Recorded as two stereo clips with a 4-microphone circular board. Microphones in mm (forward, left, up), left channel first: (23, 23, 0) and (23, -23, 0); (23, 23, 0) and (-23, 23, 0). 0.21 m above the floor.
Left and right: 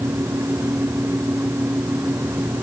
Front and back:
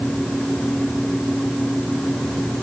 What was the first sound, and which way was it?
Only background noise.